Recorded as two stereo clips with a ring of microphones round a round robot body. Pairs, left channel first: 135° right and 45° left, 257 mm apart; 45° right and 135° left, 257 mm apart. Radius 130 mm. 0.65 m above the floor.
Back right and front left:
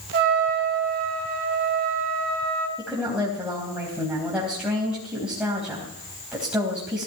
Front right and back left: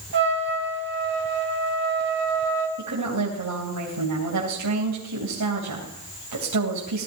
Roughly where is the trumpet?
Left.